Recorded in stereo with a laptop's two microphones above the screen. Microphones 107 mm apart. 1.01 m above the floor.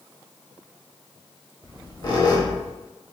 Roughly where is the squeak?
Left.